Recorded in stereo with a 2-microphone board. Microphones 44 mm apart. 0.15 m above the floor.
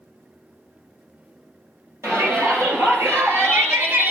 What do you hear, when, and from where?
2.0 s a shout: 70° right (ahead or behind), 3 m; by 4.1 s 50° right (ahead or behind), 1.8 m